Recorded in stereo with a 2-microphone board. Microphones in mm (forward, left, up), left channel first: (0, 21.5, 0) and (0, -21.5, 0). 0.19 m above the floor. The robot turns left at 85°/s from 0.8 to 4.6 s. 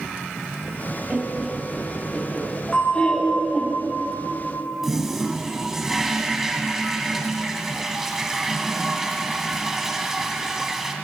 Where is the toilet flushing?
10° right (ahead or behind), 1.0 m.